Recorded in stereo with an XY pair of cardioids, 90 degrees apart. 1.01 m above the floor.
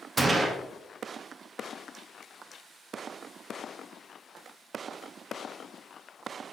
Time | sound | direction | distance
0.2 | a gunshot | 30° right | 0.7 m